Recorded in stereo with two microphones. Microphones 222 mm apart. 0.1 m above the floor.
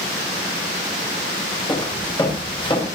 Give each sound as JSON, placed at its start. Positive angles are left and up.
{"t": 1.7, "sound": "footsteps", "side_deg": 20, "distance_m": 6.0}